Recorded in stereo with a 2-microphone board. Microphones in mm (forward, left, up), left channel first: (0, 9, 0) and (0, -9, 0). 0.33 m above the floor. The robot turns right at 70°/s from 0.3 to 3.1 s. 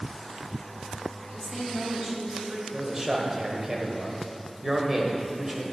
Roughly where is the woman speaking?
Behind.